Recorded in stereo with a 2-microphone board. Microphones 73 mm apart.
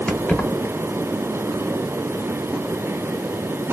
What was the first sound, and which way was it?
Keys jangling, 5° left (ahead or behind).